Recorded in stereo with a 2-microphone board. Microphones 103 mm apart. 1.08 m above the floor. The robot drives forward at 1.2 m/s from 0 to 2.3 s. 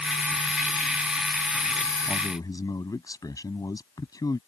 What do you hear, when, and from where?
2.1 s a man speaking: 35° left (ahead or behind)